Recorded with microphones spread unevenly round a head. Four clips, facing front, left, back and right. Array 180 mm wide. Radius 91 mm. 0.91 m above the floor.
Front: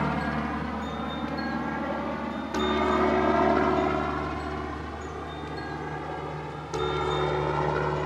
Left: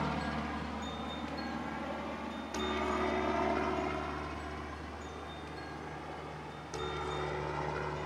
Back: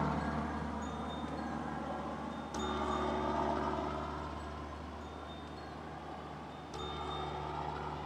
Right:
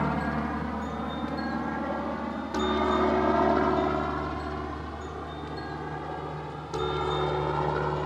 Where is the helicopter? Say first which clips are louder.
Right 7 dB, front 8 dB; 50° right; by 8.1 s 35° right.